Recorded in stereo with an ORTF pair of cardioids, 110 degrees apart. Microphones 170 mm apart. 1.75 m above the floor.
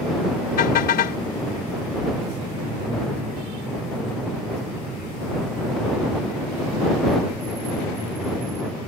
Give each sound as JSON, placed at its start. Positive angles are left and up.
{"t": 0.6, "sound": "a car horn", "azimuth_deg": 60}